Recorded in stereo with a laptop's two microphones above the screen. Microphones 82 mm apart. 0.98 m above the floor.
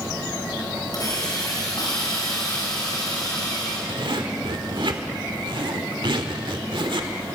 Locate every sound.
0.9 s a hiss: 45° left (ahead or behind), 4.5 m
3.9 s a zipper: 75° right (ahead or behind), 1.6 m